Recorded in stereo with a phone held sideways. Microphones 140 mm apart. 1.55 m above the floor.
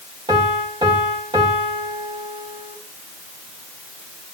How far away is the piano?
About 3 m.